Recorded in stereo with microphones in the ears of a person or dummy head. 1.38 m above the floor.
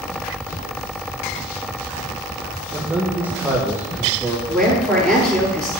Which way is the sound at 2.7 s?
10° right (ahead or behind).